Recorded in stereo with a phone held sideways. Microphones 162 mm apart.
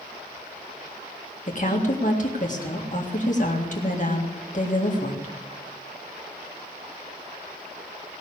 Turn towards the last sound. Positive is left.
turn(degrees=50)  # may be behind; listen again after turning